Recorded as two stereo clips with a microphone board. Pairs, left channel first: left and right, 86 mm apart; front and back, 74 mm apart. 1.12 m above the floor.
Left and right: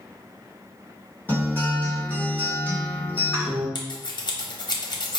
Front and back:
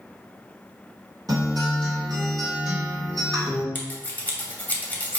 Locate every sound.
1.3 s a guitar: 155° left, 1.6 m
3.8 s scissors: 65° left, 0.8 m